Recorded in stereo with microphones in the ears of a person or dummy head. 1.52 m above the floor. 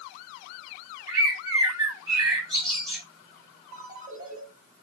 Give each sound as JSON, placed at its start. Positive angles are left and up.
{"t": 1.1, "sound": "a bird", "side_deg": -20, "distance_m": 4.5}
{"t": 3.7, "sound": "a ringtone", "side_deg": -30, "distance_m": 4.0}